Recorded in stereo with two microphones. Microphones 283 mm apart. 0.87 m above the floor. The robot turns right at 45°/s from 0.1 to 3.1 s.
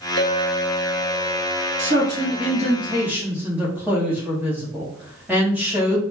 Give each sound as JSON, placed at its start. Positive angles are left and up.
{"t": 0.2, "sound": "a clink", "azimuth_deg": 135, "distance_m": 0.8}
{"t": 1.8, "sound": "a man speaking", "azimuth_deg": -65, "distance_m": 1.1}